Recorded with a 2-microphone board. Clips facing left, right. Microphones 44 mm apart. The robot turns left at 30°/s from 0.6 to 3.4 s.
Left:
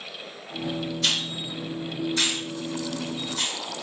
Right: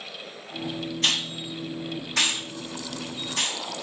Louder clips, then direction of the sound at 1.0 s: Right 3 dB; 40° right (ahead or behind).